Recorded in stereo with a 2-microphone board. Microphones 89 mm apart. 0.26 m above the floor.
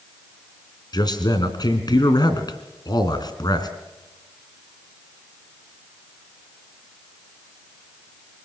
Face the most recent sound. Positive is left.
turn(degrees=50)  # may be behind; listen again after turning